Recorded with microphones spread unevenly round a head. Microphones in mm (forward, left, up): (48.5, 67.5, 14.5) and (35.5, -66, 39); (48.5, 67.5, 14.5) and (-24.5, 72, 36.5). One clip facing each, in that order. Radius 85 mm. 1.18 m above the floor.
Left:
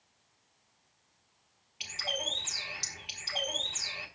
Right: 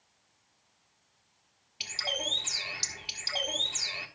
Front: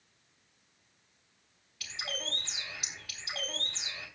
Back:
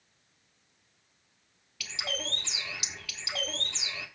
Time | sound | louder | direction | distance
1.8 | a bird | right 1 dB, back 3 dB | 160° right | 1.3 m